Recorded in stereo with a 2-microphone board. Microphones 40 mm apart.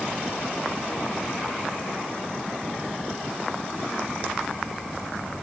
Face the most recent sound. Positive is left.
No sound to turn to.